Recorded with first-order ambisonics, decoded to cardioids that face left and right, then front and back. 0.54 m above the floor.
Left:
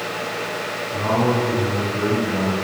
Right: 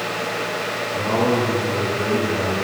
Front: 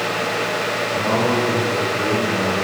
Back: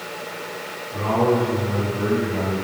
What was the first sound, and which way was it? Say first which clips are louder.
A man speaking: even, back 2 dB; 95° left.